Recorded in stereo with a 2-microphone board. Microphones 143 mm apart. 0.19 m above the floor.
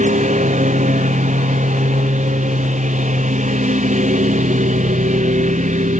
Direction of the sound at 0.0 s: 60° right (ahead or behind).